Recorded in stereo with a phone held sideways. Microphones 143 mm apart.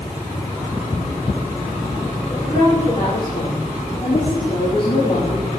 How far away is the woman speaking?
About 6.5 m.